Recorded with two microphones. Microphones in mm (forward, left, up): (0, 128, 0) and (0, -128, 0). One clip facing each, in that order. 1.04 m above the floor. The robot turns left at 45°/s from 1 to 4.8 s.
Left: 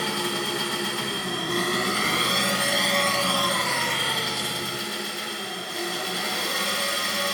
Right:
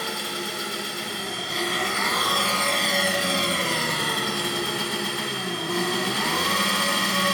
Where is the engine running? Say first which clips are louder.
Left 4 dB; 85° left, 2.5 m; by 7.3 s 85° right, 2.5 m.